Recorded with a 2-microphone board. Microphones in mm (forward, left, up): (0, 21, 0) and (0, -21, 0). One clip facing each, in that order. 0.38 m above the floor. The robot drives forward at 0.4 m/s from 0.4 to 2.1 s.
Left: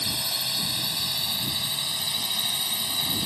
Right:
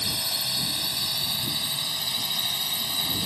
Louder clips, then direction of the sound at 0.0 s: Even; 5° left (ahead or behind).